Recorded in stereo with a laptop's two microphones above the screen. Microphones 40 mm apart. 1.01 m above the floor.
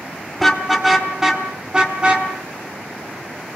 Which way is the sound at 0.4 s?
Centre (ahead or behind).